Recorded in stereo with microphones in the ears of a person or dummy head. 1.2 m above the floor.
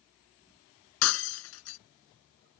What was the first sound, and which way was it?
Breaking glass, 65° left (ahead or behind).